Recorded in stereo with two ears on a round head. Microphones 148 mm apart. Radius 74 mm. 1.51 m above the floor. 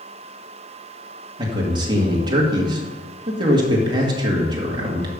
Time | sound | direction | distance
1.4 | a man speaking | 25° right (ahead or behind) | 2.5 m